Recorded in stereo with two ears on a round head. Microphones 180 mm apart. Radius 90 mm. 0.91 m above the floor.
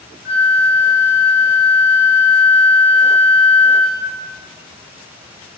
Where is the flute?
15° right (ahead or behind), 0.7 m.